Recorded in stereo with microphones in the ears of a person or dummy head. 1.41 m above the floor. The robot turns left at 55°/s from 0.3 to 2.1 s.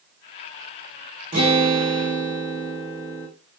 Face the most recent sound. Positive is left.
turn(degrees=170)